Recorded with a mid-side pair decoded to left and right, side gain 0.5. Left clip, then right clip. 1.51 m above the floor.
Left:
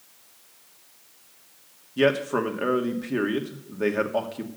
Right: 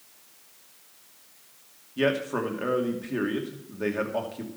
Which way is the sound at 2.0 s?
25° left.